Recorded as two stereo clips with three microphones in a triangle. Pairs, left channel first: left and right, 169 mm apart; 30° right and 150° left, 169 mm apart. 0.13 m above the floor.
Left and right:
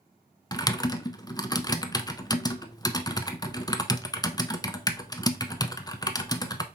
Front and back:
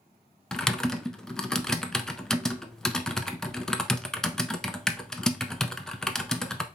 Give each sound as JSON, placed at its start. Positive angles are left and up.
{"t": 0.5, "sound": "typing on a keyboard", "azimuth_deg": 50, "distance_m": 0.6}